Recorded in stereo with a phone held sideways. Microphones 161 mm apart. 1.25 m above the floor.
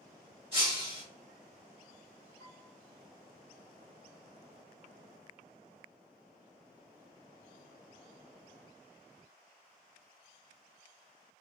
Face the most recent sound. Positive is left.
turn(degrees=20)  # may be behind; listen again after turning